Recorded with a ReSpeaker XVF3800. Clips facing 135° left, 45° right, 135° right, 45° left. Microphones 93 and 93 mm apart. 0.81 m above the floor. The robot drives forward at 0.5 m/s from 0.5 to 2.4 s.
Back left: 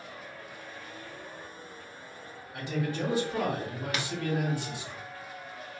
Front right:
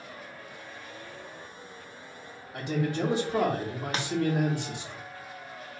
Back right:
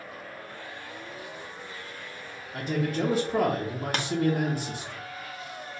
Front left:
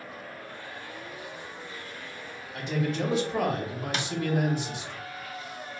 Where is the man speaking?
110° right, 0.6 m.